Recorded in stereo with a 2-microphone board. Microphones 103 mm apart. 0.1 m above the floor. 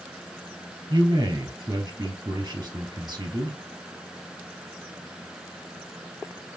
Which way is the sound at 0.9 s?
30° right (ahead or behind).